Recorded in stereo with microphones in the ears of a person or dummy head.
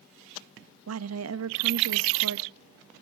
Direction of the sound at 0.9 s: 90° right.